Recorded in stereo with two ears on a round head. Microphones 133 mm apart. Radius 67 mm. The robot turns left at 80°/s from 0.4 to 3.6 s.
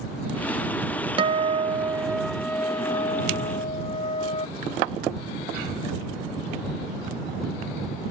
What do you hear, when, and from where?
1.2 s a guitar: 90° right; by 4.5 s 80° left